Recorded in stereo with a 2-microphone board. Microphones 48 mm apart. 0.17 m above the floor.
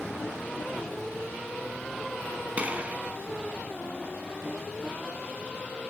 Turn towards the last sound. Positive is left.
turn(degrees=-30)  # may be behind; listen again after turning